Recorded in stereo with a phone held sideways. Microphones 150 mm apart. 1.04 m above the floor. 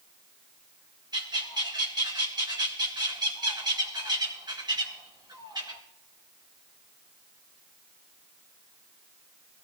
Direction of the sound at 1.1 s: 30° right (ahead or behind).